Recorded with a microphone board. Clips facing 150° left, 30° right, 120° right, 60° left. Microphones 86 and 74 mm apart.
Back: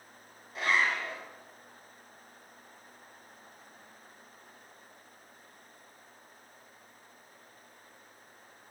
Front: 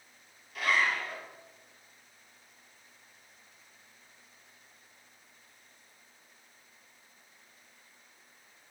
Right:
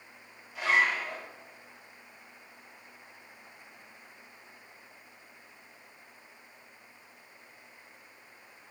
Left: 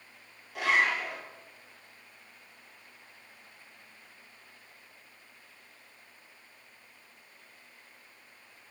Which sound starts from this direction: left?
A zipper, at 0.6 s.